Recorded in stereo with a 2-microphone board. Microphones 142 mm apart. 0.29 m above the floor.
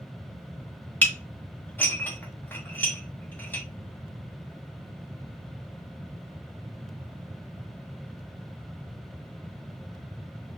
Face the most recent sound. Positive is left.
turn(degrees=15)  # may be behind; listen again after turning